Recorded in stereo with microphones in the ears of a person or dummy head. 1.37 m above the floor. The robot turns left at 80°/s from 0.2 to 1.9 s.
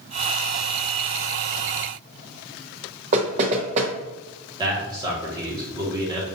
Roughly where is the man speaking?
Right.